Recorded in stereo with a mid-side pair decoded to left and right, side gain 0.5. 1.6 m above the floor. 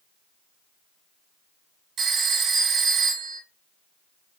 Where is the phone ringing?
55° right, 1.9 m.